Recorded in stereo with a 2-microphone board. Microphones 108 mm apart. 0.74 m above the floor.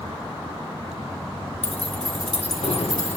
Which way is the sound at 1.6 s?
80° left.